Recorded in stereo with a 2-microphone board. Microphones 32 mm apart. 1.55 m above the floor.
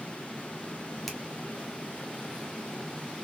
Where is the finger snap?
5° left (ahead or behind), 0.9 m.